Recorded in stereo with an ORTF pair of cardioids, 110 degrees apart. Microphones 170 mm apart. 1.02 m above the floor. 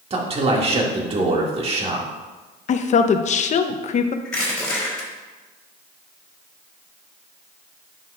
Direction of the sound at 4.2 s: 5° left.